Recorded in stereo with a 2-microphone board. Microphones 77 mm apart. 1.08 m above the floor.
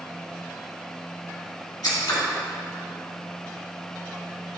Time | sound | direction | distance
1.8 | scissors | 60° left (ahead or behind) | 1.7 m